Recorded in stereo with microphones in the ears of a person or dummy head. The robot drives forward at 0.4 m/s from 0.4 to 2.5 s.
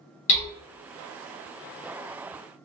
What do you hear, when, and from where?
0.3 s hammering: 40° left (ahead or behind), 1.0 m